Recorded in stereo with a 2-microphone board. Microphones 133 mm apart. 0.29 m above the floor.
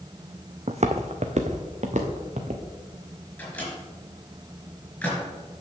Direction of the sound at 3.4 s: 10° left (ahead or behind).